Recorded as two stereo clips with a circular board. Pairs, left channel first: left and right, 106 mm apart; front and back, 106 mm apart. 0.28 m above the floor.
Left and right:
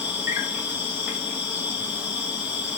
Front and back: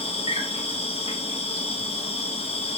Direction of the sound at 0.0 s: 10° right.